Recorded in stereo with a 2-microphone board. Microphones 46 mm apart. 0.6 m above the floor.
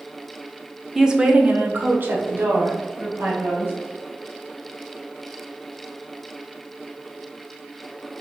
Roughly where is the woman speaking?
Centre.